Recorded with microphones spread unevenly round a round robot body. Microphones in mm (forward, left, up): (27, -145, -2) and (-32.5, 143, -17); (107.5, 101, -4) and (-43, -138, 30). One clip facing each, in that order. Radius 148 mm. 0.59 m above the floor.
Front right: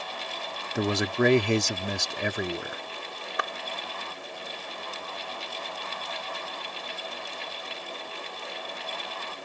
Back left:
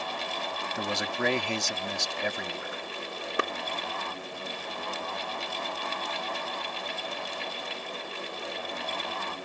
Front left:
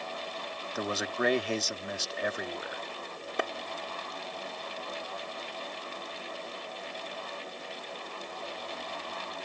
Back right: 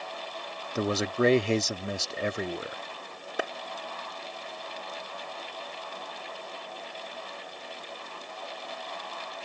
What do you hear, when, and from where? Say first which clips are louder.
0.8 s a man speaking: front right 8 dB, back right 6 dB; 60° right
3.4 s a clap: back left 6 dB, even; 150° left